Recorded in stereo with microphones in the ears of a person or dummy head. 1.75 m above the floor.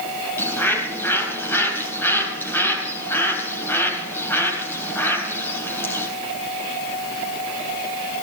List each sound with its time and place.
0.4 s a bird: 15° left (ahead or behind), 3.5 m